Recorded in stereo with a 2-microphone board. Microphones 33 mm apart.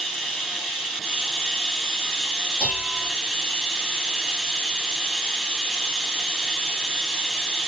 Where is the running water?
5° left (ahead or behind), 1.4 m.